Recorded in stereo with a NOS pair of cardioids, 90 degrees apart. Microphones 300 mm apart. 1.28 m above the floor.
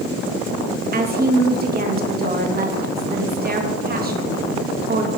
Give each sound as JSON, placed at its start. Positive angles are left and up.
{"t": 0.9, "sound": "a woman speaking", "azimuth_deg": -30, "distance_m": 2.0}